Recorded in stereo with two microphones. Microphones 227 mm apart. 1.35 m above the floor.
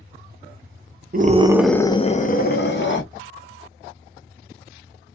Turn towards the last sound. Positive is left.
turn(degrees=55)  # may be behind; listen again after turning